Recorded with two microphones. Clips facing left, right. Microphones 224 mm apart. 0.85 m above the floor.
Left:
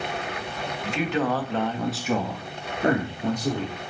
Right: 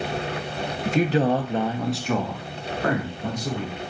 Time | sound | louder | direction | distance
0.8 | a man speaking | right 5 dB | 45° right (ahead or behind) | 1.0 m